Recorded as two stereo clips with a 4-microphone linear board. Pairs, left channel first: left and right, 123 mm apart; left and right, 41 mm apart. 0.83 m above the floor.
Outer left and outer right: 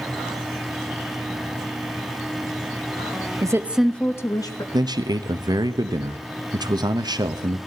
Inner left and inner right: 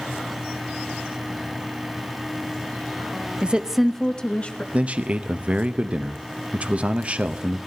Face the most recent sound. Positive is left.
turn(degrees=-35)  # may be behind; listen again after turning